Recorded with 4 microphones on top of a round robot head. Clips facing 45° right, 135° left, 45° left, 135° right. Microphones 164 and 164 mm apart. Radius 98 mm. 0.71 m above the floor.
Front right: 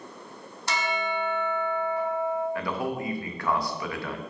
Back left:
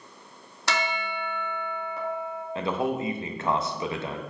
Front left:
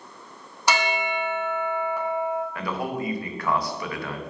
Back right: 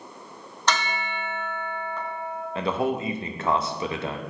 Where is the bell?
125° left, 0.9 m.